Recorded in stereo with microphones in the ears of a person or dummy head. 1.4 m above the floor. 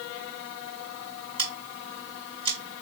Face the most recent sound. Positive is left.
turn(degrees=-30)  # may be behind; listen again after turning